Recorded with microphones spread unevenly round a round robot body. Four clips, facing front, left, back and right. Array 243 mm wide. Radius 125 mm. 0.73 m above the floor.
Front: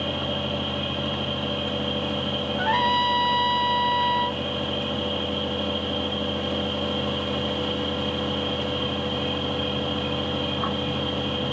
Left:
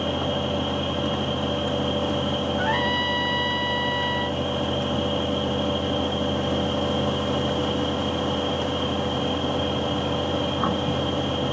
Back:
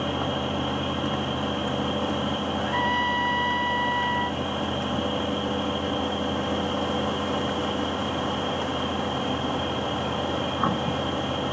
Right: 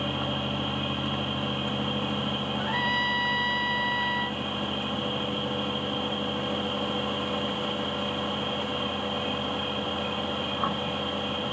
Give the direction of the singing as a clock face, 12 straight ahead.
I don't hear singing.